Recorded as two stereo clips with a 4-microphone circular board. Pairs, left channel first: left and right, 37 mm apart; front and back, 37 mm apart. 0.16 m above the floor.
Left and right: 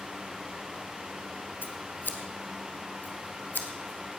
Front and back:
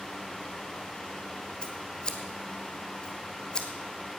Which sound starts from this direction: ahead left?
Scissors, at 1.6 s.